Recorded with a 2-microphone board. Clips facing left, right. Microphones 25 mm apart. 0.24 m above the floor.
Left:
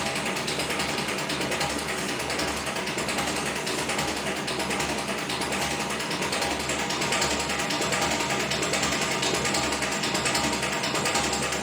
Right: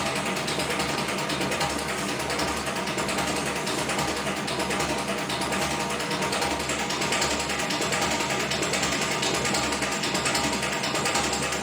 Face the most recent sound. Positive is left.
turn(degrees=5)  # may be behind; listen again after turning